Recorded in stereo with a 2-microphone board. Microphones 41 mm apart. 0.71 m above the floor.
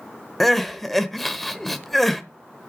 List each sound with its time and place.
0.4 s crying: 5° left (ahead or behind), 0.9 m